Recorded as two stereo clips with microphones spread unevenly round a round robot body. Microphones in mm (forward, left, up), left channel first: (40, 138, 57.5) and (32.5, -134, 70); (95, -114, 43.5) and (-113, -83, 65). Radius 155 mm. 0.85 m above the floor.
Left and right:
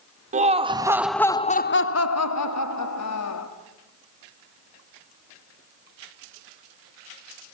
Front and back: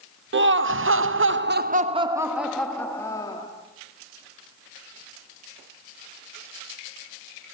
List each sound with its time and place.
0.3 s laughter: 155° right, 1.2 m; by 3.5 s 65° left, 1.7 m